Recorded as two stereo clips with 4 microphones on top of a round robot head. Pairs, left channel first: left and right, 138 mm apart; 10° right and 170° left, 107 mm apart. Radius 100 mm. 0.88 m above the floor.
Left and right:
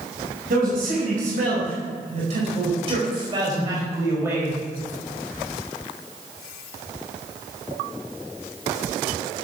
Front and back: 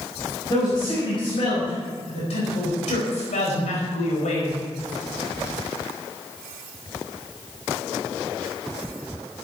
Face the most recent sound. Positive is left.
turn(degrees=-10)